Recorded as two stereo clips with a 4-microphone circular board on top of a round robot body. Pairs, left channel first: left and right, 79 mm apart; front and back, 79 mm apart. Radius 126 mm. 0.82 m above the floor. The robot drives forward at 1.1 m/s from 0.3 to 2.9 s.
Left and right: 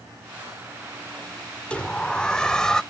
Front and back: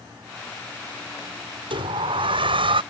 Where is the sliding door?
165° left; by 2.8 s 170° left.